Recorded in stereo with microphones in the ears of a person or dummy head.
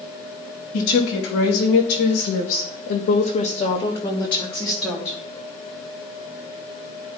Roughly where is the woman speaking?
Left.